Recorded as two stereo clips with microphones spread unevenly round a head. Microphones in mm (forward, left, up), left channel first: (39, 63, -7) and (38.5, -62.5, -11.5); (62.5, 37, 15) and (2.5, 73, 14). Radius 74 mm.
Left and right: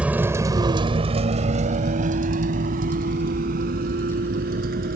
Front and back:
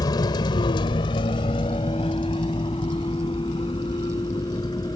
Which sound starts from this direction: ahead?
A vehicle, at 0.0 s.